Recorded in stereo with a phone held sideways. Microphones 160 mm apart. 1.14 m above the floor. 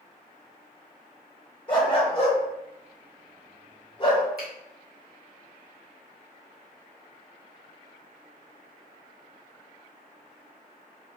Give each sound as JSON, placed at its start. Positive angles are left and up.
{"t": 1.7, "sound": "a dog barking", "side_deg": 30, "distance_m": 1.1}
{"t": 4.4, "sound": "a finger snap", "side_deg": -80, "distance_m": 1.7}